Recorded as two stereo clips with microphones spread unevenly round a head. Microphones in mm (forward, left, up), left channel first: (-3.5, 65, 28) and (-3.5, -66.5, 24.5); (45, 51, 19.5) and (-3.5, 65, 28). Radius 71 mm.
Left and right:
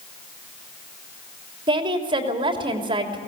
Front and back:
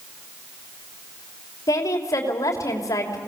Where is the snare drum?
No snare drum in this recording.